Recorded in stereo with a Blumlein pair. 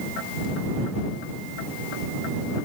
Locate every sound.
Only background noise.